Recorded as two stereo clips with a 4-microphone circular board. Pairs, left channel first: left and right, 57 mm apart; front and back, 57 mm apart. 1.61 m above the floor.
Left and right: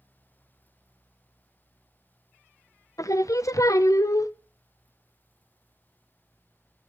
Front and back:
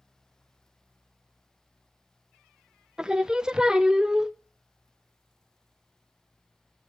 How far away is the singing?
About 0.5 m.